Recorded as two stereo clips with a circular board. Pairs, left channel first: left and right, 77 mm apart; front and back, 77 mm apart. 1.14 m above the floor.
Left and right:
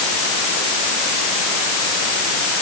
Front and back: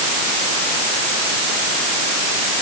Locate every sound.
Only background noise.